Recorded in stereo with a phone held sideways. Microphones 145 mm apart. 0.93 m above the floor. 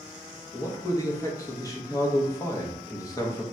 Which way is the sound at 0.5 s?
25° left (ahead or behind).